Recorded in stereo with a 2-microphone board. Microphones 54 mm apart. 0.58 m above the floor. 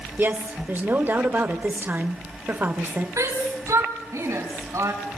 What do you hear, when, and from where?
0.2 s a woman speaking: 40° right (ahead or behind), 1.9 m
3.2 s a shout: 80° right, 6 m